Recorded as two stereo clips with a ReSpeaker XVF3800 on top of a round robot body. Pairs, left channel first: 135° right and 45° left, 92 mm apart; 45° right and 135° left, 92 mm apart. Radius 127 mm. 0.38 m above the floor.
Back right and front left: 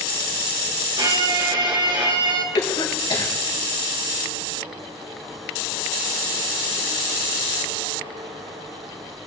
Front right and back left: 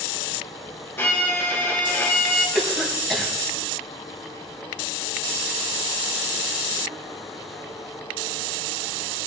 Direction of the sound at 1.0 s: 20° left.